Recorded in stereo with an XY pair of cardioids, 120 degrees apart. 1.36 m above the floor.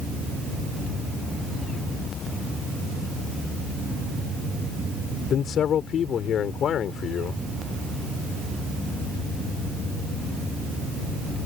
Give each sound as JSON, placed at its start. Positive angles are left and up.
{"t": 5.3, "sound": "a man speaking", "azimuth_deg": 55}